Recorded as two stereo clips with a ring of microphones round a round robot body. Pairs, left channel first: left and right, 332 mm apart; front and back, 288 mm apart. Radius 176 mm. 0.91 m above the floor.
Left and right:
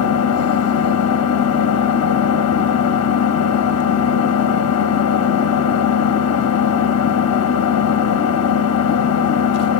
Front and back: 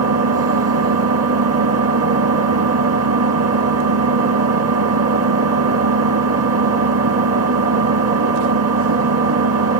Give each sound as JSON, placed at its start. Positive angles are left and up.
{"t": 0.0, "sound": "an engine running", "azimuth_deg": 140, "distance_m": 1.0}